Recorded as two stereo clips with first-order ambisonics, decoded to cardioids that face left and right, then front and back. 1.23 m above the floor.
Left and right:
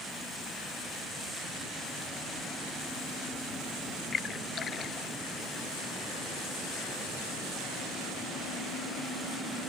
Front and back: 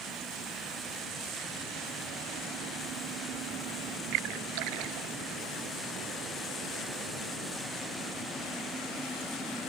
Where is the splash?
155° left.